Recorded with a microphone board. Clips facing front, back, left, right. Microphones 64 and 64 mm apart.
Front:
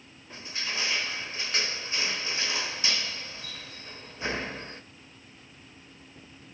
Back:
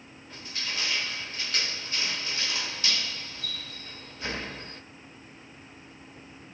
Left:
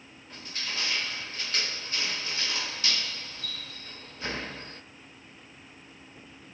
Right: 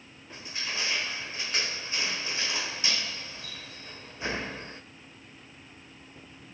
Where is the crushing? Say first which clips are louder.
Front 1 dB, right 1 dB; 40° right, 1.0 m.